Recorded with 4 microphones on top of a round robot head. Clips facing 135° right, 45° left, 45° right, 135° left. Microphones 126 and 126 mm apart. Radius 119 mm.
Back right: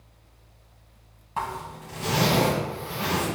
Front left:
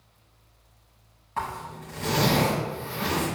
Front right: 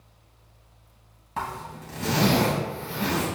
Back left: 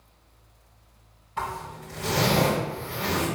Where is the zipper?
60° right, 2.5 m.